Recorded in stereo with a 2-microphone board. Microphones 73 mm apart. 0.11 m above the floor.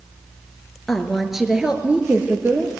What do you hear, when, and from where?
0.9 s a woman speaking: 5° left (ahead or behind), 1.8 m; by 2.7 s 30° right (ahead or behind), 2 m